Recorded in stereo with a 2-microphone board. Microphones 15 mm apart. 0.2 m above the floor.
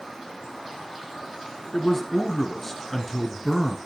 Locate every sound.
1.7 s a man speaking: 15° left (ahead or behind), 2 m